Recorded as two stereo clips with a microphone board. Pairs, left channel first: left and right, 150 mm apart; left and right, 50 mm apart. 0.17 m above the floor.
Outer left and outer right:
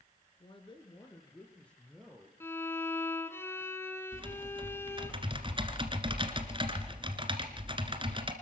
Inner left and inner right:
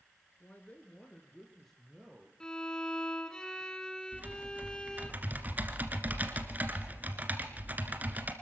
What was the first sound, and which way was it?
A man speaking, 40° left (ahead or behind).